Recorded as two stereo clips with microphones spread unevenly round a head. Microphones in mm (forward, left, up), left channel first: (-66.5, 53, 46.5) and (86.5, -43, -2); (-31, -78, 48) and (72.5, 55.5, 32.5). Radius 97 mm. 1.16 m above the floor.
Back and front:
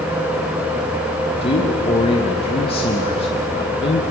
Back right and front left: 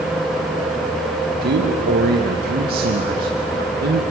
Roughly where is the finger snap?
No finger snap in this recording.